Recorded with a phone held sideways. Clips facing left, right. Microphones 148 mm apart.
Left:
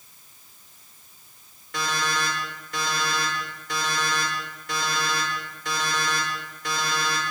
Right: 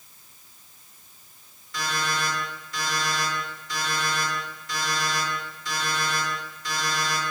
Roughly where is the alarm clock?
Left.